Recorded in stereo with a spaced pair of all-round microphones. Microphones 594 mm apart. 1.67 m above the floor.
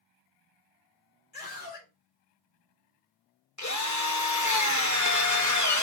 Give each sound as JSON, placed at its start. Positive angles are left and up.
{"t": 1.3, "sound": "a scream", "side_deg": 75, "distance_m": 5.0}
{"t": 3.6, "sound": "a drill", "side_deg": 30, "distance_m": 1.3}